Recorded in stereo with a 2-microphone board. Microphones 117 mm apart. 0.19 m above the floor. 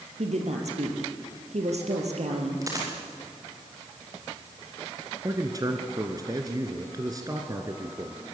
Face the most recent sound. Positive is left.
turn(degrees=-30)  # may be behind; listen again after turning